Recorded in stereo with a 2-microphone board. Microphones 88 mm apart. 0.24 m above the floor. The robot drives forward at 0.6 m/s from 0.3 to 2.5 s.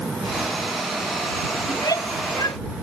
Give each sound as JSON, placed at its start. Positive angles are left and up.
{"t": 1.7, "sound": "a shout", "side_deg": 40}